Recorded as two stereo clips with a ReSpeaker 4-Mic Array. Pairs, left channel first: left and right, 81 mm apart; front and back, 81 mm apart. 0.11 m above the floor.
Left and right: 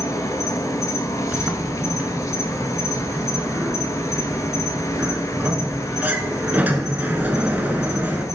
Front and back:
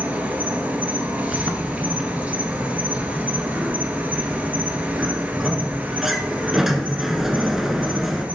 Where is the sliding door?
100° right, 0.7 m.